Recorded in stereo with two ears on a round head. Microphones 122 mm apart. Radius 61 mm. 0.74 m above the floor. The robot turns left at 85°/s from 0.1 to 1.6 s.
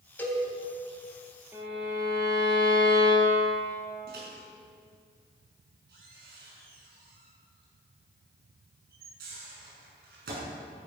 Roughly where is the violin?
Centre.